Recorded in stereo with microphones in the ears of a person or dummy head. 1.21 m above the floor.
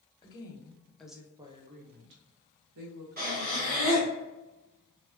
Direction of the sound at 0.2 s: 25° left (ahead or behind).